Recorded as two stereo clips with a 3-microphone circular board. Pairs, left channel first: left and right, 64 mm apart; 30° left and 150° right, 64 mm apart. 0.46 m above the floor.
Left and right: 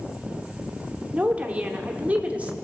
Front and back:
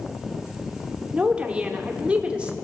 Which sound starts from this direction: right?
A woman speaking, at 1.1 s.